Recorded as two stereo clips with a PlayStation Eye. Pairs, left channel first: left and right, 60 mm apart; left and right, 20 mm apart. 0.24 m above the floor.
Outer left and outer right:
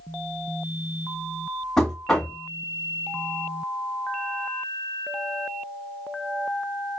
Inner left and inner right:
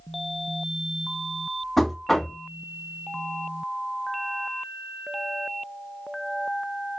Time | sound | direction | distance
1.8 | knocking | 10° left (ahead or behind) | 1.2 m